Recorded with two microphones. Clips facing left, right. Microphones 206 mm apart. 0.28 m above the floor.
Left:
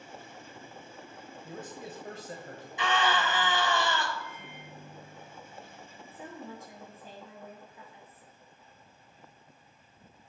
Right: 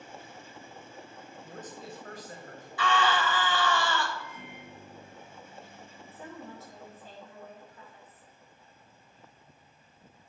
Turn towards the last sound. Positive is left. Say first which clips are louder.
# left 1 dB
turn(degrees=15)  # may be behind; listen again after turning